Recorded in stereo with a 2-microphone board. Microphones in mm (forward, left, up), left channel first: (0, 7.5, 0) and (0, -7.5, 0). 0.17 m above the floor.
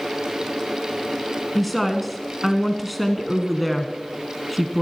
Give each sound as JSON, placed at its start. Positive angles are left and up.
{"t": 1.6, "sound": "a woman speaking", "side_deg": 5, "distance_m": 1.6}